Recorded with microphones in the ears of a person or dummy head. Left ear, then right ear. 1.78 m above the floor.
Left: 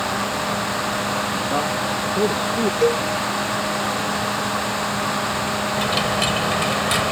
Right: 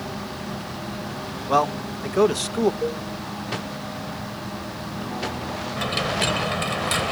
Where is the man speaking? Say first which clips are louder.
Even; 60° right (ahead or behind); by 2.7 s 55° right (ahead or behind).